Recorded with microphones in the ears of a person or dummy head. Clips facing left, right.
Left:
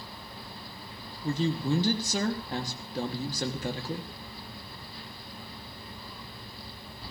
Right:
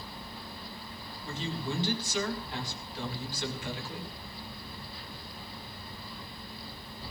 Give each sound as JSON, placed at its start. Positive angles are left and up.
{"t": 1.2, "sound": "a man speaking", "side_deg": 35, "distance_m": 2.5}